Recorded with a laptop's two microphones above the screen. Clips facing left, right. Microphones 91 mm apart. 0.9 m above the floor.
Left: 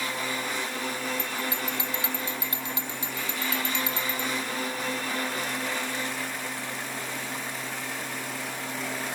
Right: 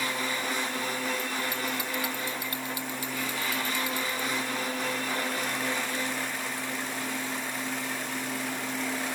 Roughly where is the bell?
Left.